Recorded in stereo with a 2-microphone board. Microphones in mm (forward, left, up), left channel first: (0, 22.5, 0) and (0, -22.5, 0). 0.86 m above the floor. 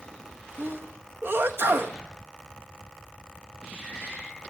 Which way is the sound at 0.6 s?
60° right (ahead or behind).